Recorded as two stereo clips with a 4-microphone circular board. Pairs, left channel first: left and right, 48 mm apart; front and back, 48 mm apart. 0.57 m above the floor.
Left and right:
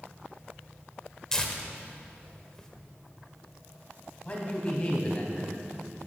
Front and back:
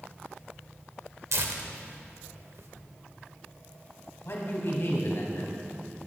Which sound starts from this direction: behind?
Tearing paper, at 1.3 s.